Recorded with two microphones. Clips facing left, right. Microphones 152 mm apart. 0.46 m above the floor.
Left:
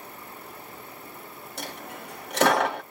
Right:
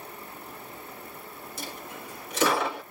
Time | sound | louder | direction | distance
1.6 | a dropped coin | left 3 dB | 80° left | 1.0 m